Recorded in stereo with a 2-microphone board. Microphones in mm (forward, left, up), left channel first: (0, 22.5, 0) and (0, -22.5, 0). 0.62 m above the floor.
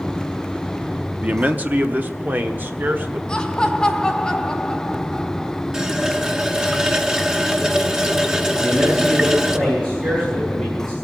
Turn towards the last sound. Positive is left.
turn(degrees=-20)  # may be behind; listen again after turning